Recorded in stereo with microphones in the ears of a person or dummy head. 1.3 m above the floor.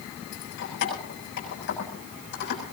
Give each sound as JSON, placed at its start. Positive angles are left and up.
{"t": 0.3, "sound": "keys jangling", "side_deg": 55, "distance_m": 7.0}